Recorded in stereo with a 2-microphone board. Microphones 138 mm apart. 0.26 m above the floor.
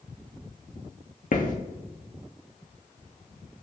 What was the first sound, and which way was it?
Footsteps, 60° left (ahead or behind).